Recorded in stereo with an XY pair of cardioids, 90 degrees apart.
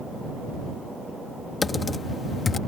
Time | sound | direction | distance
1.6 | typing on a keyboard | 40° left | ?